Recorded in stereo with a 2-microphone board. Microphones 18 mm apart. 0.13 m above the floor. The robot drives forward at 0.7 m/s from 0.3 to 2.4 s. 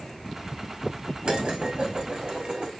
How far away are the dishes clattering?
About 4.5 m.